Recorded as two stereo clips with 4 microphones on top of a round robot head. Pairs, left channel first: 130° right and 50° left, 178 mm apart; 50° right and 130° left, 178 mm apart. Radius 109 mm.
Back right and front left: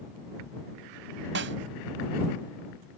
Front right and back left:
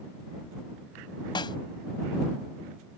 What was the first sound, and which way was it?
A snare drum, 20° left.